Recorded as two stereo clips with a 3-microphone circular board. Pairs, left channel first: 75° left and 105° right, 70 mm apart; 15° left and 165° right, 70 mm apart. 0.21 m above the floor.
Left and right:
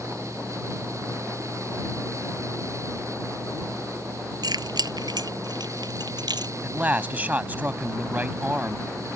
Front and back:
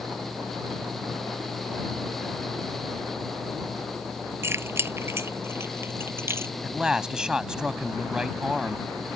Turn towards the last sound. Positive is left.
turn(degrees=-100)